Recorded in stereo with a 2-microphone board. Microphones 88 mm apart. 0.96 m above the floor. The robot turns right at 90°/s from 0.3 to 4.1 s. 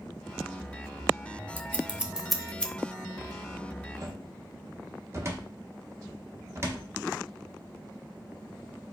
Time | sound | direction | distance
1.6 | scissors | 25° right (ahead or behind) | 0.7 m
4.0 | a cupboard door | 40° right (ahead or behind) | 0.8 m